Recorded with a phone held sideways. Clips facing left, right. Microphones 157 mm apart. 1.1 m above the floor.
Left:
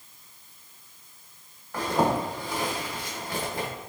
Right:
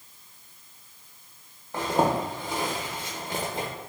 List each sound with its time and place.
1.7 s a zipper: 25° right (ahead or behind), 0.9 m